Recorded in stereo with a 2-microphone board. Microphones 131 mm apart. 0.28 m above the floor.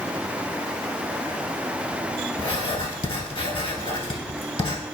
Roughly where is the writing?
Left.